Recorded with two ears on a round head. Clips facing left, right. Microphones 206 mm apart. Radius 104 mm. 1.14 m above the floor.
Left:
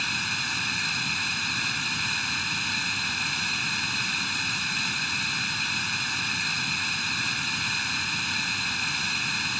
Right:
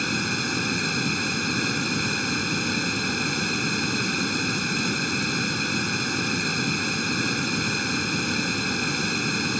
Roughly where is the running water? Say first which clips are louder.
Right 12 dB; right.